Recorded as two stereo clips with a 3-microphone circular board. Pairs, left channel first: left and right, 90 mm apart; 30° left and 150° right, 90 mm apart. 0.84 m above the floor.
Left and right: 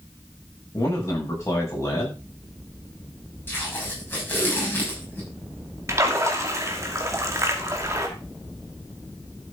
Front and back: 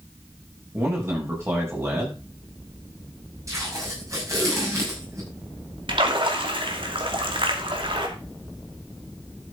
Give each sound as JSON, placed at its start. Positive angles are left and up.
{"t": 0.7, "sound": "a man speaking", "azimuth_deg": 150, "distance_m": 6.5}
{"t": 3.5, "sound": "tape being pulled", "azimuth_deg": 155, "distance_m": 6.5}
{"t": 5.9, "sound": "a splash", "azimuth_deg": -145, "distance_m": 2.0}